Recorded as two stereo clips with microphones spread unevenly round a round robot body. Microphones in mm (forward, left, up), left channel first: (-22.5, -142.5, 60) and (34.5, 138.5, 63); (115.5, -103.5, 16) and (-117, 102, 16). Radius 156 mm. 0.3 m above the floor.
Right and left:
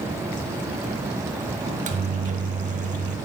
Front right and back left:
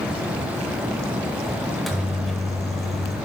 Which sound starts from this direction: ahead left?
A microwave, at 1.7 s.